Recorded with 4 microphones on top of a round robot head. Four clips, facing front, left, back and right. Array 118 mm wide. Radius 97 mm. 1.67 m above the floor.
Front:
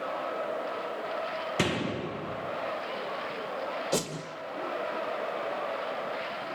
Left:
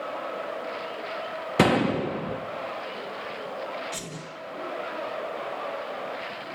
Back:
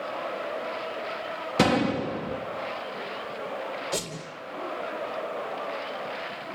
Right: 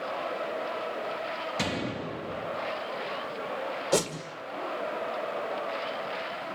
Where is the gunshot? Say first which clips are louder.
Left 15 dB, back 9 dB; 115° left, 1.6 m.